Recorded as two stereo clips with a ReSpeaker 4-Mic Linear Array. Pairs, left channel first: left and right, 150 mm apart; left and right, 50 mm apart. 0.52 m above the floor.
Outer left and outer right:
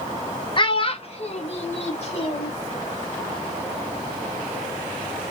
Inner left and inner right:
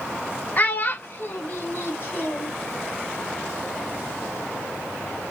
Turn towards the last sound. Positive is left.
turn(degrees=45)  # may be behind; listen again after turning